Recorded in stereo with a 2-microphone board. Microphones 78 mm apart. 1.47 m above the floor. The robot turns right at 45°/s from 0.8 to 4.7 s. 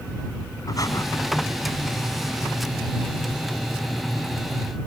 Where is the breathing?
50° left (ahead or behind); by 1.1 s 40° left (ahead or behind).